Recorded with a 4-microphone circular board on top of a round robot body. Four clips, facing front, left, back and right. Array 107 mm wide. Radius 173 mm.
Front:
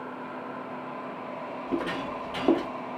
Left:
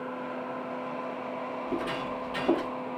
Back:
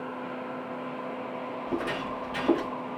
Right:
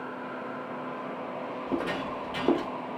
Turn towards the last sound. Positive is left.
turn(degrees=-30)